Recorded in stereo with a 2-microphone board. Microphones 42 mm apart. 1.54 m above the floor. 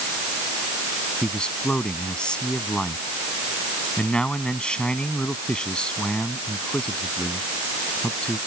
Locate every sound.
1.2 s a man speaking: 20° left (ahead or behind)